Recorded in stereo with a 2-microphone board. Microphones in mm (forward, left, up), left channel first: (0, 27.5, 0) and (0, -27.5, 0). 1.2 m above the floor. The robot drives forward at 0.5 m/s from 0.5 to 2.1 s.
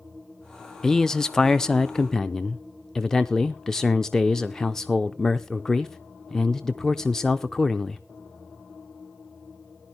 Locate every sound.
0.8 s a man speaking: 10° left (ahead or behind), 0.6 m